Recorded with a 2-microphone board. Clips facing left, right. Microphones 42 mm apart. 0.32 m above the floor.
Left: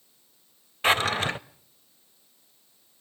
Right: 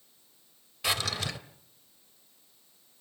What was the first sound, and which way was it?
A drawer, 35° left (ahead or behind).